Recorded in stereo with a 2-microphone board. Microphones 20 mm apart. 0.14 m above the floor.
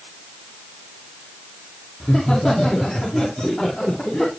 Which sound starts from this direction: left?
Laughter, at 2.0 s.